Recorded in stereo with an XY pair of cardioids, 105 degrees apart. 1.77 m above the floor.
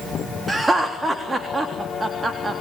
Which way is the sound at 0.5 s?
25° right.